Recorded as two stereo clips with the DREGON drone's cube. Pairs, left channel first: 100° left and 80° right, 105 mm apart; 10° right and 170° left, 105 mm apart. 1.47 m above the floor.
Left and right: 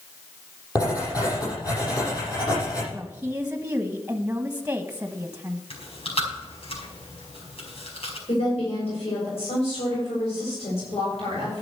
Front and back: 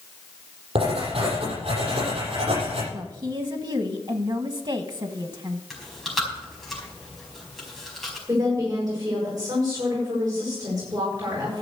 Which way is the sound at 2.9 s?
150° right.